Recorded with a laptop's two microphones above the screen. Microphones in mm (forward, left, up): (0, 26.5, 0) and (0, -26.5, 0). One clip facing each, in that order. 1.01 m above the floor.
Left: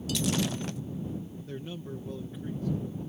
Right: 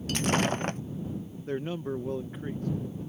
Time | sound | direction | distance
0.1 | breaking glass | 45° right (ahead or behind) | ?
1.5 | a man speaking | 45° right (ahead or behind) | ?